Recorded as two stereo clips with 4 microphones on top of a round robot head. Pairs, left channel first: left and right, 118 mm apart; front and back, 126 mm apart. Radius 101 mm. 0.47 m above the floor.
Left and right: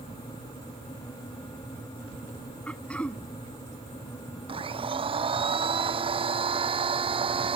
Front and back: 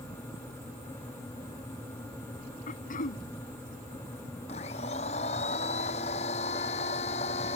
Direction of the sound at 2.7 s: 10° left.